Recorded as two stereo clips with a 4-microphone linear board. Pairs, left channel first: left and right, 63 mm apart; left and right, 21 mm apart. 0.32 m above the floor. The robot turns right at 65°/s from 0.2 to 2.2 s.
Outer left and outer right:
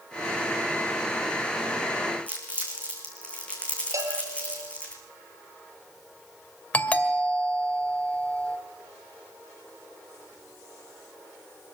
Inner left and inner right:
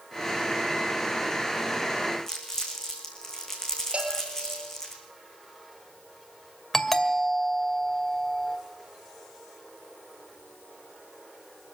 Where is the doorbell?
25° left (ahead or behind), 1.8 m.